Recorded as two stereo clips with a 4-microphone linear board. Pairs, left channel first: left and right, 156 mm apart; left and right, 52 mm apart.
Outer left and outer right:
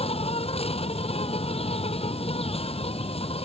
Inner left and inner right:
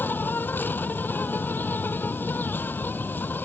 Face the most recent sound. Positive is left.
turn(degrees=40)  # may be behind; listen again after turning